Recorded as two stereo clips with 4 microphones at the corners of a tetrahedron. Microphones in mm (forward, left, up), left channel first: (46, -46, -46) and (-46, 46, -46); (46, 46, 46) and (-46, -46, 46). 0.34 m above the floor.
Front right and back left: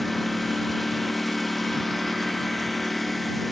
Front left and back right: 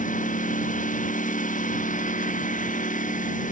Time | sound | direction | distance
0.0 | a lawn mower | 45° left | ?